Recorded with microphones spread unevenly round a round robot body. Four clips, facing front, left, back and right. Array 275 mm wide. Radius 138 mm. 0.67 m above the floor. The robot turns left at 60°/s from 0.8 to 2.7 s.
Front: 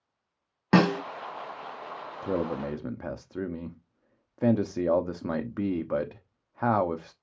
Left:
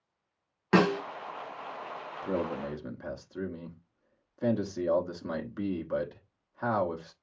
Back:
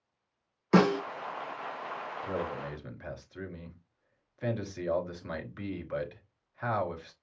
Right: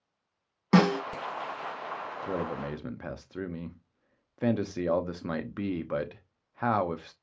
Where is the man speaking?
10° left, 0.9 m; by 7.1 s 15° right, 0.9 m.